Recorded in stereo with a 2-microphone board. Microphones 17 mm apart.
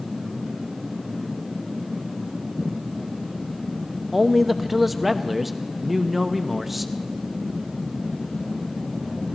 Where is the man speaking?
5° right (ahead or behind), 0.8 m.